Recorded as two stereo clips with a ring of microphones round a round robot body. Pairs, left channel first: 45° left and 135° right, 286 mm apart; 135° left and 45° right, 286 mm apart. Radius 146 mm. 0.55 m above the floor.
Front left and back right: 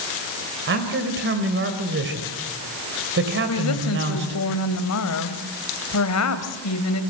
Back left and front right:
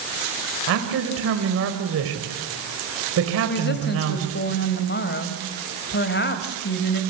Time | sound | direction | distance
0.7 | a man speaking | 85° right | 3 m
3.5 | a woman speaking | 80° left | 2.5 m